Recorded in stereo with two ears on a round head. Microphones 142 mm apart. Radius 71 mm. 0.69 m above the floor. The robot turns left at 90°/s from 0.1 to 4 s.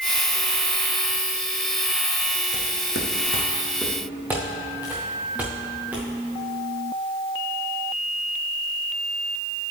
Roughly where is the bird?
No bird in this recording.